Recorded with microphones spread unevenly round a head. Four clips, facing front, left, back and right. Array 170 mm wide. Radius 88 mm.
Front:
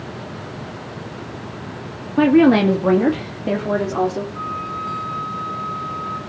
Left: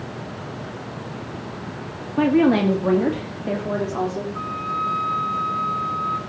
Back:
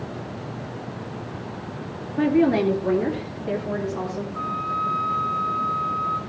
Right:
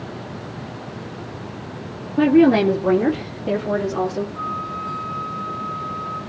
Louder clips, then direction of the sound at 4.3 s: Left 1 dB, even; 90° left.